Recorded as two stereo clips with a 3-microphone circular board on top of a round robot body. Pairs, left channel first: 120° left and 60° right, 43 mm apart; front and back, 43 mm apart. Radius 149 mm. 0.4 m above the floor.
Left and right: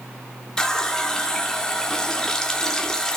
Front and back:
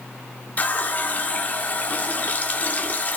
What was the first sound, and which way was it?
A running tap, 45° left.